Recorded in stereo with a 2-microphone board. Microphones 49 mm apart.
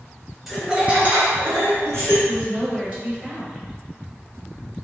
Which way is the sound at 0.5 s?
5° right (ahead or behind).